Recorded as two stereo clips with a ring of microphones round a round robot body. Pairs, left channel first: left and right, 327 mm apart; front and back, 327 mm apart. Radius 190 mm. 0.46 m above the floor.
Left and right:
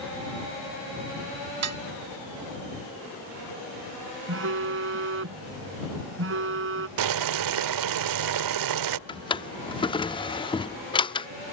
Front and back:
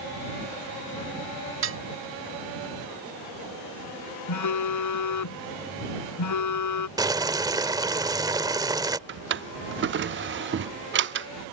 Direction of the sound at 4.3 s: 35° right.